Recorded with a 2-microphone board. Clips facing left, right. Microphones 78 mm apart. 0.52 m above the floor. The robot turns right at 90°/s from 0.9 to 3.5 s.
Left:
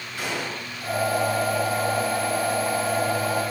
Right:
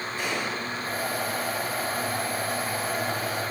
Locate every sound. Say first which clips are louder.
0.2 s a gunshot: left 1 dB; 75° left (ahead or behind), 5 m